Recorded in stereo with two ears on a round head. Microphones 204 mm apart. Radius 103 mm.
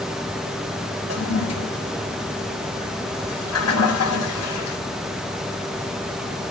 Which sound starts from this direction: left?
A toilet flushing, at 1.1 s.